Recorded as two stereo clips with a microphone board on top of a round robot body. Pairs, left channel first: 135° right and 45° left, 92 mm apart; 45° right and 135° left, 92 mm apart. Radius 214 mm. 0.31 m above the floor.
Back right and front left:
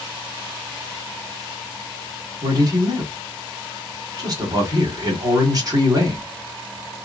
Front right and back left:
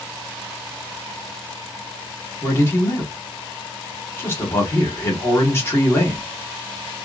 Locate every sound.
2.4 s a man speaking: 10° left, 2 m